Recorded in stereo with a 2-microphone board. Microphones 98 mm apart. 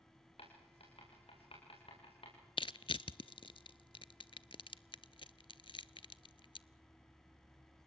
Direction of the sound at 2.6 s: 65° left (ahead or behind).